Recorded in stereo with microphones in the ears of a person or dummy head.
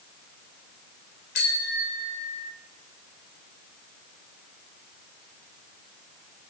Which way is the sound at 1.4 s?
55° left (ahead or behind).